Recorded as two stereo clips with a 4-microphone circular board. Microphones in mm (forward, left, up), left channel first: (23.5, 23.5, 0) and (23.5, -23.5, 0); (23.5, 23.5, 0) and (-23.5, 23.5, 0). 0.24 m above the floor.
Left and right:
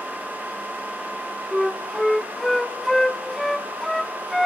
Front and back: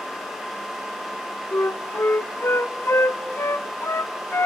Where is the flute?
5° left, 0.6 m.